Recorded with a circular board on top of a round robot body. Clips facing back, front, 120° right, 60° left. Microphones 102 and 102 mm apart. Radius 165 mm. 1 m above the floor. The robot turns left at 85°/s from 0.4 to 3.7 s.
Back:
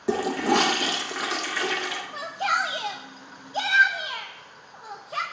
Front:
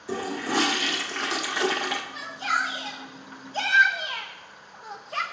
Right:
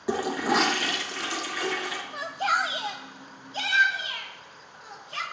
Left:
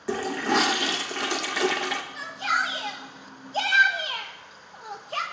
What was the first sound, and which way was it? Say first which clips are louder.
A toilet flushing: back 6 dB, even; 165° left.